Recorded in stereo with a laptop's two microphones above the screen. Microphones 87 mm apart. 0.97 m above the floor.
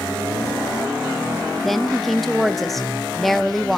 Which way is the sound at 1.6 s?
Centre (ahead or behind).